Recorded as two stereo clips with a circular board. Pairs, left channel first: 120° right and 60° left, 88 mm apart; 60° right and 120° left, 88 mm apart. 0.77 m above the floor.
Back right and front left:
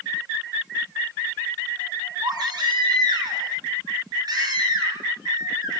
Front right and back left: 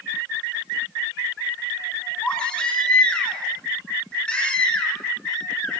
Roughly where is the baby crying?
Ahead.